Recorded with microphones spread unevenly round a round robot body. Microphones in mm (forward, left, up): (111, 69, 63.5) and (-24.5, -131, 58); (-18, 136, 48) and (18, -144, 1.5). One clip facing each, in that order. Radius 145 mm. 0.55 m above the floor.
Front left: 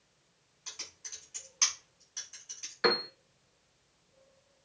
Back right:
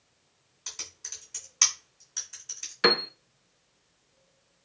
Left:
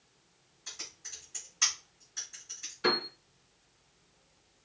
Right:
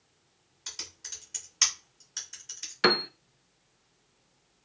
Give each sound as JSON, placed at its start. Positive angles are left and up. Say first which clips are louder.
{"t": 0.7, "sound": "typing on a keyboard", "louder": "back right 3 dB, right 2 dB", "azimuth_deg": -85, "distance_m": 2.5}
{"t": 2.8, "sound": "a piano", "louder": "back right 3 dB, right 5 dB", "azimuth_deg": -70, "distance_m": 0.5}